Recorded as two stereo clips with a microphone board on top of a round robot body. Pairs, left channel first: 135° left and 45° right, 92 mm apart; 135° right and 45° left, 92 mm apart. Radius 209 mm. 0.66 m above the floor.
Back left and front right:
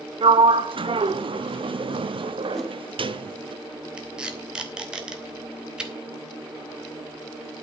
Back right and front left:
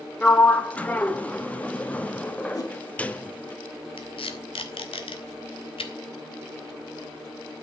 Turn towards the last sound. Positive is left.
turn(degrees=-125)